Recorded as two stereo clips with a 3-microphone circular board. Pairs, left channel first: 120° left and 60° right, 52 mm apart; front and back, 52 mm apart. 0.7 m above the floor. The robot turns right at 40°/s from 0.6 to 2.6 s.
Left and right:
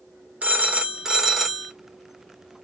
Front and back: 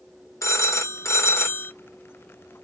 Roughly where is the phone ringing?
Ahead.